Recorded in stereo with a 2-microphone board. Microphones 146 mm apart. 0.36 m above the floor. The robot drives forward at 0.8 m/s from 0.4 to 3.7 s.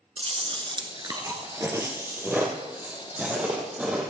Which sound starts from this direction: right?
Chewing, at 0.2 s.